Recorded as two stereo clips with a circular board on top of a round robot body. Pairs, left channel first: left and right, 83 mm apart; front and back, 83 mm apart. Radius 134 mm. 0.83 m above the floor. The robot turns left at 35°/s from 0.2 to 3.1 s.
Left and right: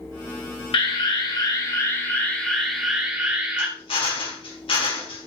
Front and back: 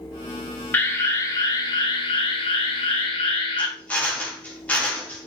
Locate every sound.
0.7 s an alarm: 70° left, 2.5 m; by 3.7 s 15° right, 2.5 m
3.6 s a drill: 75° left, 3 m